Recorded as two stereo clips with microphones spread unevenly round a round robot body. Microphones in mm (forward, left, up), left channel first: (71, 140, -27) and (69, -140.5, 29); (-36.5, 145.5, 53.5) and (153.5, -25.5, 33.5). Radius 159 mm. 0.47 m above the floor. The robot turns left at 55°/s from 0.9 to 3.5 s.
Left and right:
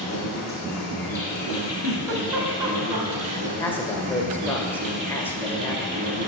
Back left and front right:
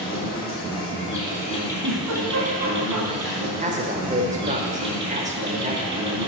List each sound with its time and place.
0.0 s an insect: 105° left, 2.5 m; by 6.3 s 40° right, 2.5 m
1.8 s a giggle: 60° right, 1.4 m; by 3.4 s 150° right, 1.4 m
3.6 s a man speaking: 15° left, 1.5 m